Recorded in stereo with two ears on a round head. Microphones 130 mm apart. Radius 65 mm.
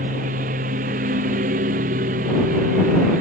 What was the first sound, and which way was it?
A lawn mower, 55° right (ahead or behind).